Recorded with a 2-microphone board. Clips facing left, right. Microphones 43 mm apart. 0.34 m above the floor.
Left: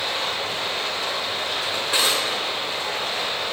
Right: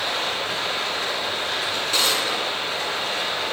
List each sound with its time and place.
0.0 s running water: 75° right (ahead or behind), 2.5 m
1.7 s a drawer: 15° left (ahead or behind), 1.6 m